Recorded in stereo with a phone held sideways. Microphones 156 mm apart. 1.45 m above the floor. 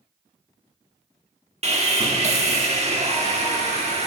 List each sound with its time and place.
1.6 s sawing: 45° right (ahead or behind), 1.2 m